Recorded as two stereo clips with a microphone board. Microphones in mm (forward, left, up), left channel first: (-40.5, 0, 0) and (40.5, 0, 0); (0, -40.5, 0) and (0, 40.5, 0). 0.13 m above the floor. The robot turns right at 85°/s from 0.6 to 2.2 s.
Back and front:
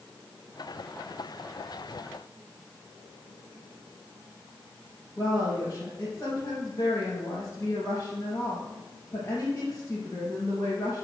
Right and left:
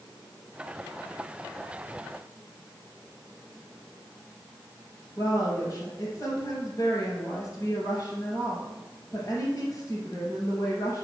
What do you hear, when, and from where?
5.2 s a woman speaking: 130° right, 2.5 m